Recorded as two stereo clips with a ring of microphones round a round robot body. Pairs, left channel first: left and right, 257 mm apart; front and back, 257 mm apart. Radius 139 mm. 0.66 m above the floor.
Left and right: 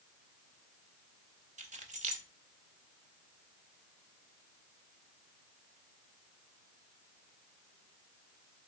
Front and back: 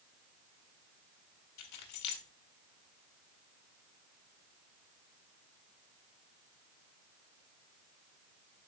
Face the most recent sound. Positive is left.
turn(degrees=-30)